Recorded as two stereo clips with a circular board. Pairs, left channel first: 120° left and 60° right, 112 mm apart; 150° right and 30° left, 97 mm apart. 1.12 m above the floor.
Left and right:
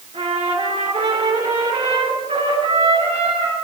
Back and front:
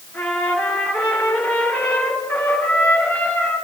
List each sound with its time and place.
0.1 s a trumpet: 80° right, 3.5 m